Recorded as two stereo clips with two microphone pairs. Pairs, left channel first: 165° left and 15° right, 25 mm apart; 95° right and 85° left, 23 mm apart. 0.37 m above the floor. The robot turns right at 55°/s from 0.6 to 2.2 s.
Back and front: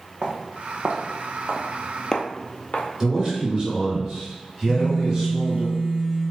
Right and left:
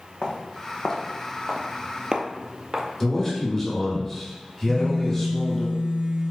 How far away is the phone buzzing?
About 1.2 m.